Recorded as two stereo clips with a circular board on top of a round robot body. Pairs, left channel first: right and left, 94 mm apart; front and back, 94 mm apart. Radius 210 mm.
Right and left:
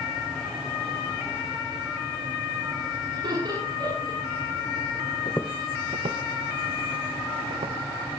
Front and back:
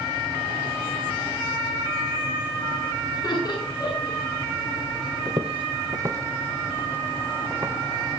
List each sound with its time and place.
3.1 s laughter: 45° left, 8.5 m
5.2 s footsteps: 120° right, 0.5 m; by 7.8 s 110° left, 3 m